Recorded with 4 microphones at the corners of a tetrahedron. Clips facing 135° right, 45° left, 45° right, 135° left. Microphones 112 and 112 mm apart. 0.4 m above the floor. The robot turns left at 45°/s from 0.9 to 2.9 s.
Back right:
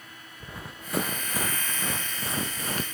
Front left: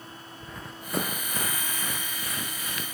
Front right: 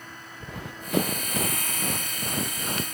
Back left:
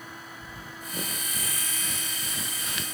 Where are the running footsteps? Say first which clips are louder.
Back right 1 dB, front right 3 dB; 55° right, 1.8 m; by 2.9 s 90° right, 1.8 m.